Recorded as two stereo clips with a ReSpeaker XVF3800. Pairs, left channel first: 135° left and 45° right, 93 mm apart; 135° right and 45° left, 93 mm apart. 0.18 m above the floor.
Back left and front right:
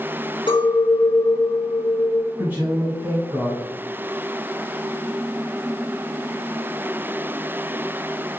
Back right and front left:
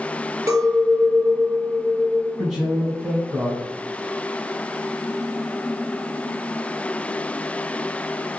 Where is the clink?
105° left, 1.3 m.